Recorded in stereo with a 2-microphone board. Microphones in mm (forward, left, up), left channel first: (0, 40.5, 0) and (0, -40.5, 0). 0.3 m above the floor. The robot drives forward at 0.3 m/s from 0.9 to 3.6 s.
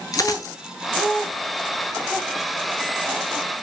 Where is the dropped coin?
45° left (ahead or behind), 0.5 m.